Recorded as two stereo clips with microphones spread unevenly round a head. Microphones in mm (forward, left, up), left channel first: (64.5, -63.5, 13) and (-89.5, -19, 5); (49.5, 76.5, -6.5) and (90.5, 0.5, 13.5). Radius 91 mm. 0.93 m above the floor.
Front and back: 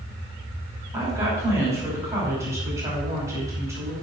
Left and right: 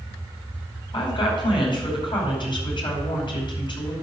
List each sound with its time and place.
0.9 s a woman speaking: 85° left, 5.5 m